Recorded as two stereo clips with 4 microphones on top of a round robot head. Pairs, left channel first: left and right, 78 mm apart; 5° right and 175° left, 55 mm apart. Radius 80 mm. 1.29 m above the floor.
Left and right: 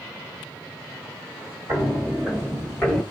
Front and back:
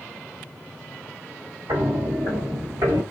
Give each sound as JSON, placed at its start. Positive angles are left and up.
{"t": 1.7, "sound": "footsteps", "azimuth_deg": -150, "distance_m": 1.8}